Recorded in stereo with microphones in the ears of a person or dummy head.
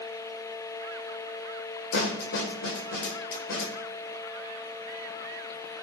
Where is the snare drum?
65° left (ahead or behind), 1.9 m.